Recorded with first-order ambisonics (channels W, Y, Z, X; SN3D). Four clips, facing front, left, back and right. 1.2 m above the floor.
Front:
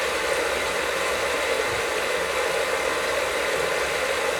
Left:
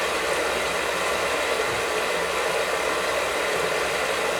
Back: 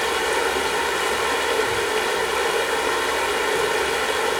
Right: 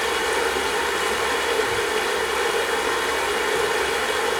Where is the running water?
145° right, 4 m.